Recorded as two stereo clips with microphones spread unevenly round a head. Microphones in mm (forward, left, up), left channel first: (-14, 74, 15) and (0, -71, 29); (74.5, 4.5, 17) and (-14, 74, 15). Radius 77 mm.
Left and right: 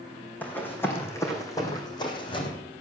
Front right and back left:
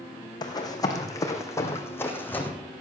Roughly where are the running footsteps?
Ahead.